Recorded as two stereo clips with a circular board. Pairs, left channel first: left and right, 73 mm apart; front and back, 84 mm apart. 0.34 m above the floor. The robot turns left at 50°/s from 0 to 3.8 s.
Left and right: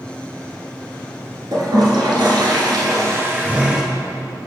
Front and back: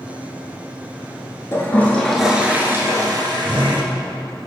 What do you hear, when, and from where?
1.5 s a toilet flushing: 55° right, 1.2 m; by 3.8 s 170° right, 1.2 m